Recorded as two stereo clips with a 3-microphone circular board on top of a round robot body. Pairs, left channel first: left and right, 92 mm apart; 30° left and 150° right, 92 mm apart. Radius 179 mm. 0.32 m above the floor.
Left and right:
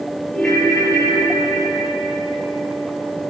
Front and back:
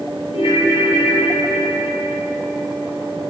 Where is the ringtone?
5° left, 6.5 m.